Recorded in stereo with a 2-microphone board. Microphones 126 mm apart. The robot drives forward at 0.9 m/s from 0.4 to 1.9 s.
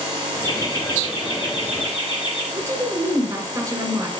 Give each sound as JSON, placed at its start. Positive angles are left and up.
{"t": 0.4, "sound": "laughter", "side_deg": 30, "distance_m": 2.5}
{"t": 2.5, "sound": "a woman speaking", "side_deg": -25, "distance_m": 1.4}